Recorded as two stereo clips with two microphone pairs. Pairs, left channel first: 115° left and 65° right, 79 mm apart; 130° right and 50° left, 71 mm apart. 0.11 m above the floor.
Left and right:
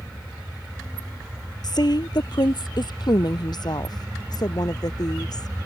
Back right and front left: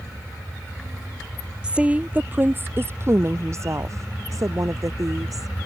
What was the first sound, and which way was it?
A woman speaking, 120° left.